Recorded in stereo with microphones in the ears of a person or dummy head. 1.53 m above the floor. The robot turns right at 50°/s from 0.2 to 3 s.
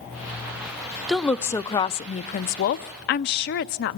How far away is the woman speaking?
About 0.5 m.